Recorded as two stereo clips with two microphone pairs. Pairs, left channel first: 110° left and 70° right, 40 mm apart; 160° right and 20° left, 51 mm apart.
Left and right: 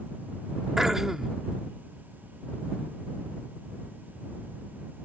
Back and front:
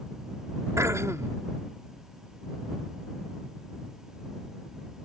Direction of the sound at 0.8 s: 5° left.